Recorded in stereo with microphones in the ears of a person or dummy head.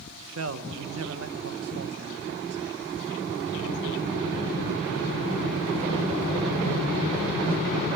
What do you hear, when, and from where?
0.2 s a man speaking: 75° right (ahead or behind), 0.7 m